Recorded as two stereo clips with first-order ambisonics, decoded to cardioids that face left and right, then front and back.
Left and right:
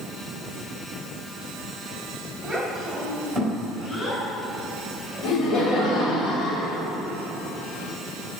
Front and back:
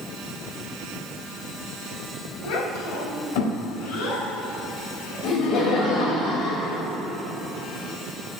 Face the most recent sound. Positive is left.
turn(degrees=45)